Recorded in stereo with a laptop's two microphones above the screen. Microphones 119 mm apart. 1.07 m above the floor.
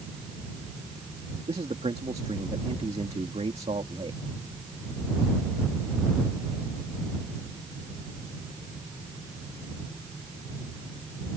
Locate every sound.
1.5 s a man speaking: 60° right (ahead or behind)